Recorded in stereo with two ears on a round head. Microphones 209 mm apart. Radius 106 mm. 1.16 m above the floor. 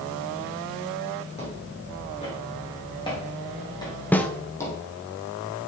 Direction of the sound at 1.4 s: 30° left (ahead or behind).